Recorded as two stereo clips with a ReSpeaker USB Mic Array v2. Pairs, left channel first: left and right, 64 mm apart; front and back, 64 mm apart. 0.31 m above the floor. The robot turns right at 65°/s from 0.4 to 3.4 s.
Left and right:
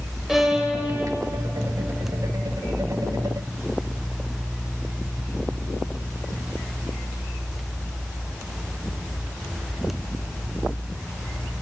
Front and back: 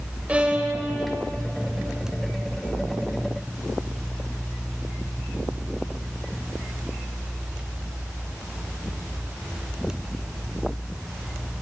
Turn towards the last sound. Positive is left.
turn(degrees=30)